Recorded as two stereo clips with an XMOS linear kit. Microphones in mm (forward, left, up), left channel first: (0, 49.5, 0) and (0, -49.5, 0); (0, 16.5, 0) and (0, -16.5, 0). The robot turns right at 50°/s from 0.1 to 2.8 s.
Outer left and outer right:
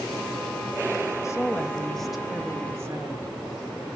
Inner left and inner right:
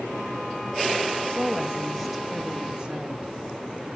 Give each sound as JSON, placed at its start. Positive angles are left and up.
{"t": 1.2, "sound": "a woman speaking", "azimuth_deg": 135, "distance_m": 1.0}